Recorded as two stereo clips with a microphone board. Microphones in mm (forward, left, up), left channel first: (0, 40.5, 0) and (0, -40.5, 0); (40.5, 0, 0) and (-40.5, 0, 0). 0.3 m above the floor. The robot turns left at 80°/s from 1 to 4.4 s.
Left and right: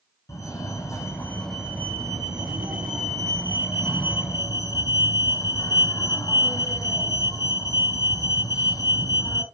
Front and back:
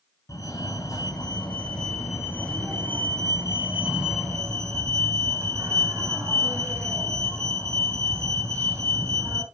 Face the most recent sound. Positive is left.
turn(degrees=130)